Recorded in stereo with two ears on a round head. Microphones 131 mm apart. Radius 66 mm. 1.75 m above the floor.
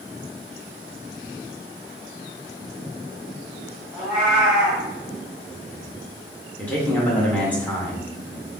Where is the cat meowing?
5° right (ahead or behind), 1.7 m.